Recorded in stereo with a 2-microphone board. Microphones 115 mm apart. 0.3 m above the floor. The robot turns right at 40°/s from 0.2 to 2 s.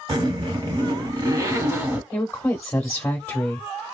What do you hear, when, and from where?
0.1 s a zipper: 100° right, 1.1 m; by 2.0 s 30° right, 1.1 m
2.1 s a woman speaking: 20° left (ahead or behind), 1.0 m